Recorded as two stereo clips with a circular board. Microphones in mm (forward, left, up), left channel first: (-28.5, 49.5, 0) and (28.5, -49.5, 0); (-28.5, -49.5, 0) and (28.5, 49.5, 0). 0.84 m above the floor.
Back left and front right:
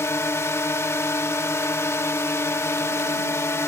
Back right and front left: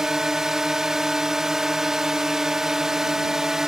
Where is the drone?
140° left.